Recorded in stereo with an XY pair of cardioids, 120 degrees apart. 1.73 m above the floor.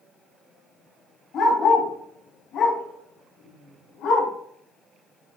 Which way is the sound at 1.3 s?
55° left.